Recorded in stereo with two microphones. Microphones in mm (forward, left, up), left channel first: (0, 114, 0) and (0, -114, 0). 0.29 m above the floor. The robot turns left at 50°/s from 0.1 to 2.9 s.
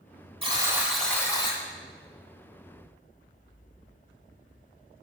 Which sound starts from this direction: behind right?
A buzzer, at 0.4 s.